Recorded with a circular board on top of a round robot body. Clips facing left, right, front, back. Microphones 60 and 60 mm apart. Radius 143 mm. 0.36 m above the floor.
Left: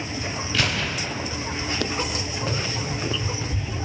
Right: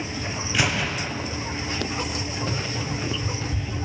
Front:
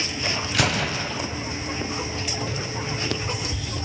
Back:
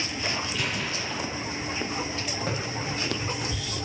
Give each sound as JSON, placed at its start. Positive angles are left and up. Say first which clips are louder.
{"t": 0.5, "sound": "a gunshot", "louder": "right 2 dB, front 6 dB", "azimuth_deg": -15, "distance_m": 0.7}
{"t": 2.5, "sound": "running footsteps", "louder": "left 1 dB, front 1 dB", "azimuth_deg": 145, "distance_m": 6.5}